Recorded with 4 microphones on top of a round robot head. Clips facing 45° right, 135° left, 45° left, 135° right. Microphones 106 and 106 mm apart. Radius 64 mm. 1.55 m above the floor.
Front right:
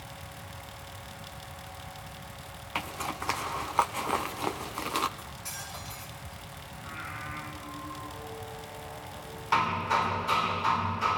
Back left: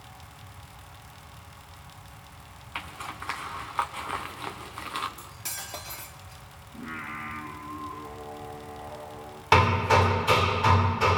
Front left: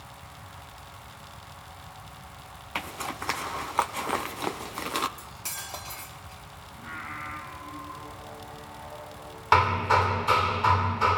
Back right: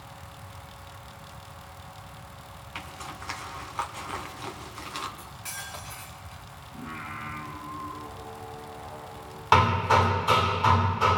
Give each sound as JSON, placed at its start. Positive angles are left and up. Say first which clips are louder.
{"t": 2.8, "sound": "a zipper", "louder": "front right 4 dB, front left 6 dB", "azimuth_deg": 10, "distance_m": 0.9}
{"t": 5.2, "sound": "cutlery clinking", "louder": "front right 1 dB, even", "azimuth_deg": 100, "distance_m": 2.5}
{"t": 6.7, "sound": "singing", "louder": "back left 5 dB, back right 1 dB", "azimuth_deg": 155, "distance_m": 5.5}
{"t": 9.5, "sound": "hammering", "louder": "back left 6 dB, back right 1 dB", "azimuth_deg": 145, "distance_m": 1.8}